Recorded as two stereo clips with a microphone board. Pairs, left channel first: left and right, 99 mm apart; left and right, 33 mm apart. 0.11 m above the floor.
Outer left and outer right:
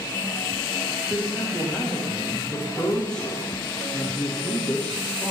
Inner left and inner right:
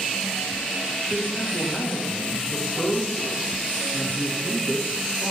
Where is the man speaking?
10° left (ahead or behind), 7.5 m.